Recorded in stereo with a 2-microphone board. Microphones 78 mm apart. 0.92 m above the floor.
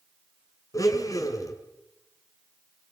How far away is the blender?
About 5 m.